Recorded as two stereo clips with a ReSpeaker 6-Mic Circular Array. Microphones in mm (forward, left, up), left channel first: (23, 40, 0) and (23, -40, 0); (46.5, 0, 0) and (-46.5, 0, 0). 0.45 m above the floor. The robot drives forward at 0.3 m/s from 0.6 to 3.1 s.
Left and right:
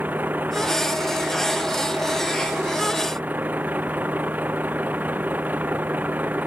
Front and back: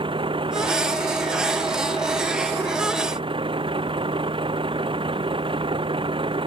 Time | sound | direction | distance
0.0 | a vehicle | 160° right | ?